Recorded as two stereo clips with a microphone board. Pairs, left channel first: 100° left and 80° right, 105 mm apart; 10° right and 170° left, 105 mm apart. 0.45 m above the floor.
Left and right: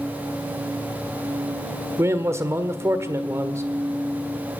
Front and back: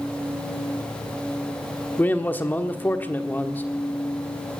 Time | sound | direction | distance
2.0 | a man speaking | 65° right | 1.5 m